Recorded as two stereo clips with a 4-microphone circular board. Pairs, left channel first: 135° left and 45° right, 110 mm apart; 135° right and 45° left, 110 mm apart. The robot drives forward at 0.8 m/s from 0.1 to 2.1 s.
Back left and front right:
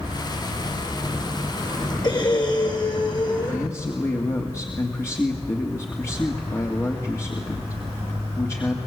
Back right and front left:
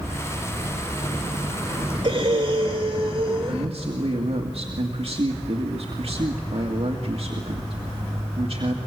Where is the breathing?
85° left, 4 m.